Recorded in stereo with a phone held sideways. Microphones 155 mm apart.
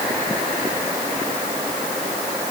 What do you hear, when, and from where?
Only background noise.